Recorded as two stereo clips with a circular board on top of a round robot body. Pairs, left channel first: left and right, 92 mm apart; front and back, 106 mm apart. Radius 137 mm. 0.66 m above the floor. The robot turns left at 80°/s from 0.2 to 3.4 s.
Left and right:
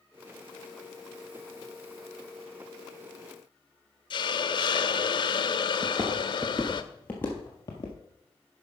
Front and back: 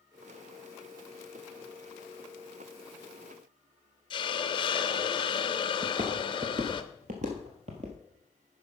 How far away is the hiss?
About 0.5 m.